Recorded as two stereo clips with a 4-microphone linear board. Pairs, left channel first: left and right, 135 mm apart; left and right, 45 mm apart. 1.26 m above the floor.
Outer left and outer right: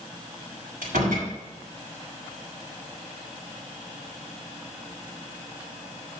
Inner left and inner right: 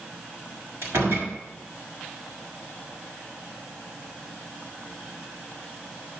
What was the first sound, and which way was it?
A door slam, 85° right.